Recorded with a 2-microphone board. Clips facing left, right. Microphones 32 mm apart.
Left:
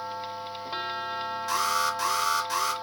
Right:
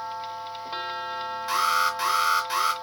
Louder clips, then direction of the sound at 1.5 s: Right 4 dB; 15° right (ahead or behind).